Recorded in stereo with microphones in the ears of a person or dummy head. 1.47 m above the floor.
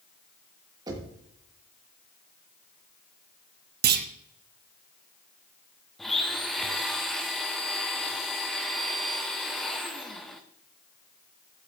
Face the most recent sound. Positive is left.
turn(degrees=5)  # may be behind; listen again after turning